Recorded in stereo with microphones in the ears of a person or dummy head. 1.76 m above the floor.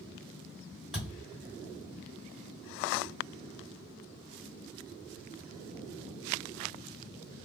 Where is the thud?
Centre (ahead or behind), 2 m.